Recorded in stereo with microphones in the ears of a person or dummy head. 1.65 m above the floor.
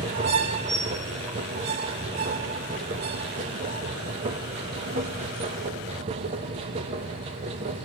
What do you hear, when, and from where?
0.0 s a machine running: 25° right (ahead or behind), 0.9 m